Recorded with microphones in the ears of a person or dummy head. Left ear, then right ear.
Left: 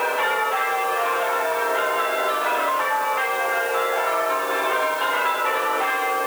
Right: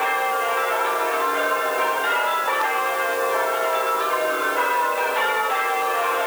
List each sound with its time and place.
Only background noise.